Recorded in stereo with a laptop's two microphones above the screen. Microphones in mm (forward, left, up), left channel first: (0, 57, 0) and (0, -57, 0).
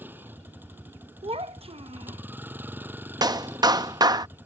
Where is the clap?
35° right (ahead or behind).